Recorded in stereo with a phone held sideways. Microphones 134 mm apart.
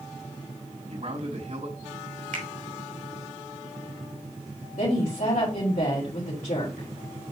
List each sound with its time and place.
0.9 s a man speaking: 60° right (ahead or behind), 5 m
2.3 s a finger snap: 80° right, 2.5 m
4.8 s a woman speaking: 65° left (ahead or behind), 4 m